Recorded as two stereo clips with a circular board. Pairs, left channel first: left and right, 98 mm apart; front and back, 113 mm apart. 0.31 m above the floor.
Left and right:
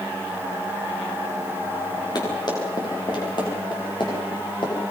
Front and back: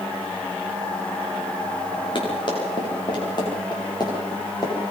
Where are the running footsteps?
45° left, 9.5 m; by 4.8 s 55° left, 11 m.